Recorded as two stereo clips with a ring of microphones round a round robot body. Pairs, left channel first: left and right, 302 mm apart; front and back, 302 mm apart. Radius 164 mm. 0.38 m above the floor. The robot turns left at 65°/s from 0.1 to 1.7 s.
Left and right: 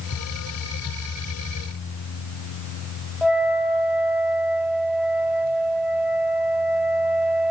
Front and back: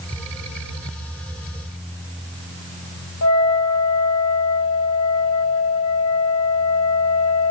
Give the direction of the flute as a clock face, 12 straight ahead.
12 o'clock.